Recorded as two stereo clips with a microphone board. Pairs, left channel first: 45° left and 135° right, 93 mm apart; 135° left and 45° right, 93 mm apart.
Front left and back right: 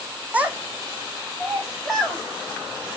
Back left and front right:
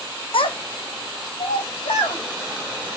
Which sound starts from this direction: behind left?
A child speaking, at 0.3 s.